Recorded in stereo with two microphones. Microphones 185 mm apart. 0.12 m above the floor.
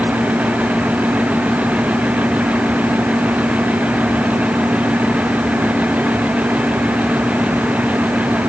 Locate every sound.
Only background noise.